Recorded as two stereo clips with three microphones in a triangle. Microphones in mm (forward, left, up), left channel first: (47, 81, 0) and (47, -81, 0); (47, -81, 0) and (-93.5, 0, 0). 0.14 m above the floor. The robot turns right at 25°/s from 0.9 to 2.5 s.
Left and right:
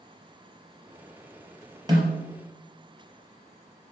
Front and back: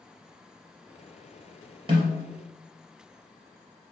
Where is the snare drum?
150° right, 3 m; by 2.3 s 145° right, 3 m.